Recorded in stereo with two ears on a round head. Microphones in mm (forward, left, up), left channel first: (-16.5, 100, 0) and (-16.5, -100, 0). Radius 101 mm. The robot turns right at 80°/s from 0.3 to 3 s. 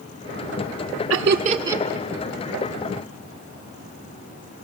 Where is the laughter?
60° right (ahead or behind), 1.8 m; by 1.8 s 5° right (ahead or behind), 1.8 m.